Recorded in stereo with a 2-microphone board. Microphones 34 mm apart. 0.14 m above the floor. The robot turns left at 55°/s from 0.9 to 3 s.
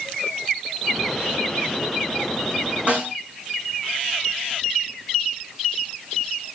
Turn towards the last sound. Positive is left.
turn(degrees=-35)  # may be behind; listen again after turning